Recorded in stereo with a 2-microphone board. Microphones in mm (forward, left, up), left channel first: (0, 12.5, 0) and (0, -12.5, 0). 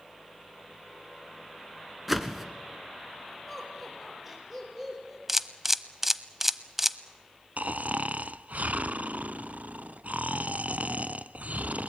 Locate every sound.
2.1 s a whoosh: 5° right (ahead or behind), 1.7 m
3.5 s laughter: 15° right (ahead or behind), 6 m
5.3 s a camera shutter: 10° right (ahead or behind), 0.6 m
7.6 s snoring: 75° right (ahead or behind), 0.5 m